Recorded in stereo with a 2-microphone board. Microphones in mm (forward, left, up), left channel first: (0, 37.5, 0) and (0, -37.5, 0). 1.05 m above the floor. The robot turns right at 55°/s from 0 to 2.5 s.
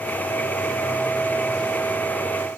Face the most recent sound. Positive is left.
No sound to turn to.